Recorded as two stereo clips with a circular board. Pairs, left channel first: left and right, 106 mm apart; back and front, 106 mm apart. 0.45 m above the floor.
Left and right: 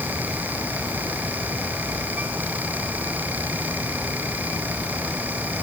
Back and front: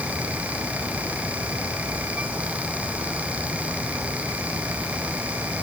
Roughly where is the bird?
No bird in this recording.